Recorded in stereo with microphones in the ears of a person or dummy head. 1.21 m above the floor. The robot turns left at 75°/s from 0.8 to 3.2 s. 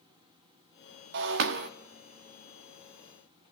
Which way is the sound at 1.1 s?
75° right.